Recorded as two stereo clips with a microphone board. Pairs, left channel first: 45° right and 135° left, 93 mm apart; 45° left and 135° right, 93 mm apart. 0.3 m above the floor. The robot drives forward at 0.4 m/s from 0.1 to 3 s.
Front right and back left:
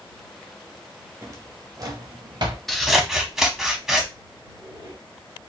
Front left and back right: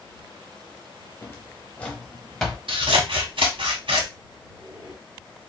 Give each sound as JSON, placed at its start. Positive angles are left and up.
{"t": 1.2, "sound": "a drawer", "azimuth_deg": 95, "distance_m": 0.8}
{"t": 2.7, "sound": "scissors", "azimuth_deg": -130, "distance_m": 0.7}
{"t": 4.4, "sound": "a squeak", "azimuth_deg": 175, "distance_m": 2.5}